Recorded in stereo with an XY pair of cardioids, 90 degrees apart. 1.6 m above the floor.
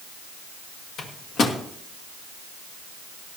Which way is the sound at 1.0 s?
65° left.